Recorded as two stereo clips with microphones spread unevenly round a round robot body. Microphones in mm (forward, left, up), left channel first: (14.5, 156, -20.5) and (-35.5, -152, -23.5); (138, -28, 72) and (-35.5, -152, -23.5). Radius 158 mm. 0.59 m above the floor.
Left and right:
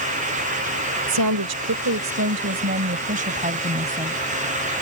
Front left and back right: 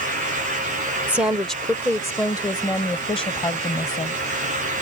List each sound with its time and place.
1.1 s a woman speaking: 70° right; by 4.2 s 25° right